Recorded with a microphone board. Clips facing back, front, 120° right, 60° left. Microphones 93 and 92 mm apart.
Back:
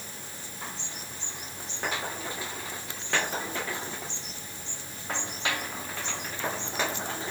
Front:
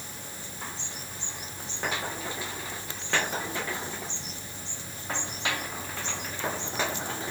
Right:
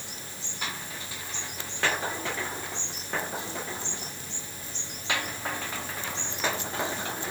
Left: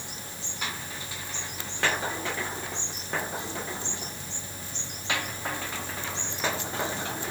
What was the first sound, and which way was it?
Only background noise.